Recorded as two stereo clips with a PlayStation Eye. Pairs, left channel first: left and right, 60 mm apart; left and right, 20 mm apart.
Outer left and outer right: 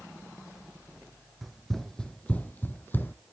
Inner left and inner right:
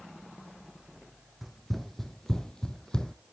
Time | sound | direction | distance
1.4 | running footsteps | centre (ahead or behind) | 1.2 m